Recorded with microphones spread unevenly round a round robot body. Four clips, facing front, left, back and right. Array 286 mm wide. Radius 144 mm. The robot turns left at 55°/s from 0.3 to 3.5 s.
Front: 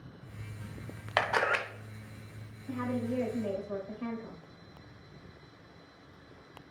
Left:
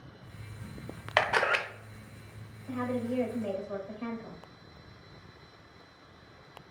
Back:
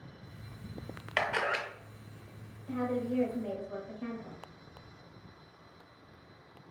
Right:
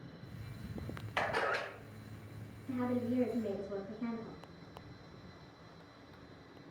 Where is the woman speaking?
100° left, 2 m; by 4.4 s 55° left, 2 m.